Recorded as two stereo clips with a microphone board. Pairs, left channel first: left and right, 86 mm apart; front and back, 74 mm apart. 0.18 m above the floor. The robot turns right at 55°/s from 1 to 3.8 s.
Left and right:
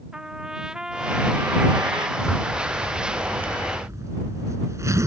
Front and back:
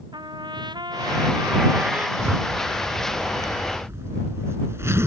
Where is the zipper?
135° left; by 5.1 s 135° right.